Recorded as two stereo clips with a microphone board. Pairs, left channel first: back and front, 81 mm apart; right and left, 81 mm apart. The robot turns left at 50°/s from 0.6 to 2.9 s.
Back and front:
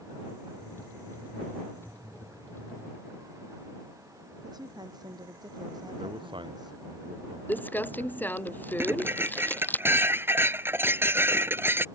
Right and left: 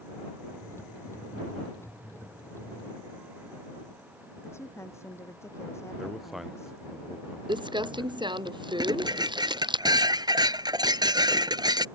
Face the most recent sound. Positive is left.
turn(degrees=60)